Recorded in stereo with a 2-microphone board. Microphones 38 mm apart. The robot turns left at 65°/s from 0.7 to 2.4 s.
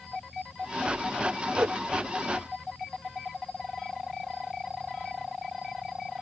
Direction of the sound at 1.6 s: 65° right (ahead or behind).